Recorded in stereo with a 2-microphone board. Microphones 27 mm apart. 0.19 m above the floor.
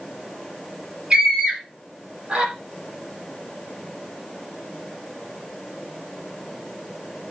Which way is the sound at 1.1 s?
25° right (ahead or behind).